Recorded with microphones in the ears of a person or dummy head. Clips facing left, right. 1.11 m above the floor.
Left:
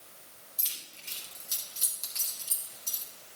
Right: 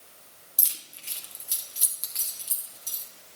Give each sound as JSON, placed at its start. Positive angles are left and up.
{"t": 0.6, "sound": "keys jangling", "side_deg": -55, "distance_m": 1.2}